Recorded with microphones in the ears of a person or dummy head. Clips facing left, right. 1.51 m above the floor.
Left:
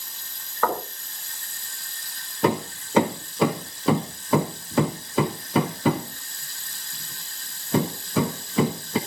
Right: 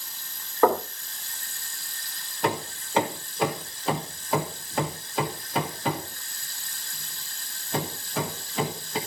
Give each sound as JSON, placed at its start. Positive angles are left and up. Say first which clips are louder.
{"t": 0.6, "sound": "knocking", "louder": "right 5 dB", "side_deg": -15, "distance_m": 3.0}
{"t": 2.4, "sound": "hammering", "louder": "left 5 dB", "side_deg": 65, "distance_m": 1.3}